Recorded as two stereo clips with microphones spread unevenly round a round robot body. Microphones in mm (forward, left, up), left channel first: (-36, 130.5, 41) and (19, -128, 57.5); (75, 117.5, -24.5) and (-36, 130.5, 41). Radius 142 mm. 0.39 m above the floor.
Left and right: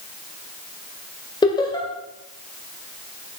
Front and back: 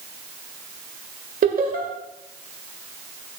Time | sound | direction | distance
1.4 | laughter | 170° left | 1.9 m